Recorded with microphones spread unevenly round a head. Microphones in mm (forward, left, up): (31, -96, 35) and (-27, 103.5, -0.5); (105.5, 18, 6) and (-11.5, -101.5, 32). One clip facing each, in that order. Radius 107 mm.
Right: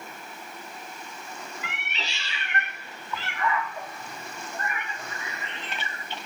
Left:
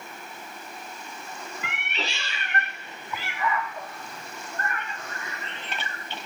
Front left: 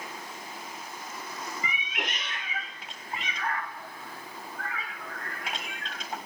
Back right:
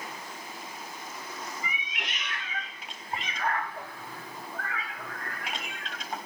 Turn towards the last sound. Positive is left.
turn(degrees=-145)